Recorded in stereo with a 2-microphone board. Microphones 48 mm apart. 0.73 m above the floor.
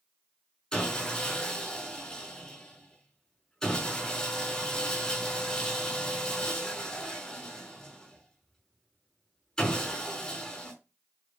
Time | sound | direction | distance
0.7 | sawing | 10° left (ahead or behind) | 5 m